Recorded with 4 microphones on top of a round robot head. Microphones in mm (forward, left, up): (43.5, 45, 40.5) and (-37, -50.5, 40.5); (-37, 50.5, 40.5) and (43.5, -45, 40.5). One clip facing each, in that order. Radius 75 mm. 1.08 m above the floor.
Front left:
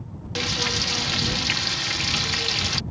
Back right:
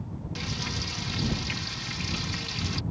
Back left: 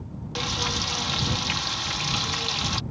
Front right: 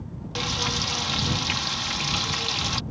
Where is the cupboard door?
I don't hear a cupboard door.